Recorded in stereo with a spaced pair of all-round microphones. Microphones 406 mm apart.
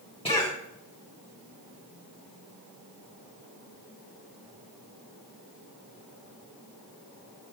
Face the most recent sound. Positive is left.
turn(degrees=15)  # may be behind; listen again after turning